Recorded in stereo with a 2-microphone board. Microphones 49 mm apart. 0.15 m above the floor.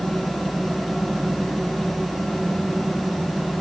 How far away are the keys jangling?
I don't hear keys jangling.